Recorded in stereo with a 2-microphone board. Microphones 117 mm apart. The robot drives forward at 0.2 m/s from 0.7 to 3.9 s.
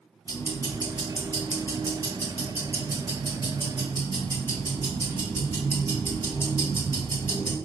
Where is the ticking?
25° left (ahead or behind), 1.2 m; by 7.5 s 20° left (ahead or behind), 1.6 m.